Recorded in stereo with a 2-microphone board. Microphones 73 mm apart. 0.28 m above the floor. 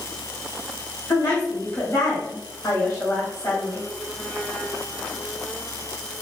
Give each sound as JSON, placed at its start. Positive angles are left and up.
{"t": 1.1, "sound": "a woman speaking", "side_deg": 35, "distance_m": 1.3}